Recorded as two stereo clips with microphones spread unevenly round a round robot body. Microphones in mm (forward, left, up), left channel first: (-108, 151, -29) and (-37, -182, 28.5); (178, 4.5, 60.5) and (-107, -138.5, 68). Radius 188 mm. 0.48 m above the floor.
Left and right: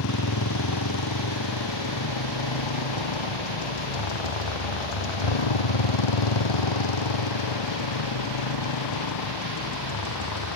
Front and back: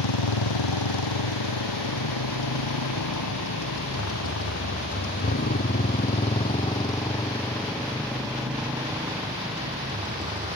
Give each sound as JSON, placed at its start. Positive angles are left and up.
{"t": 0.0, "sound": "a motorcycle", "azimuth_deg": 50}